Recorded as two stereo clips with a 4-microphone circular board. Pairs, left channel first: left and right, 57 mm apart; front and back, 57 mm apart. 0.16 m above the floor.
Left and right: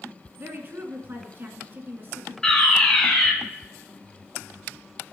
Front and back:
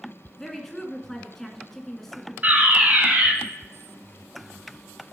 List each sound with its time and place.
0.4 s a woman speaking: 80° right, 1.8 m
2.4 s a fire alarm: 165° left, 2.5 m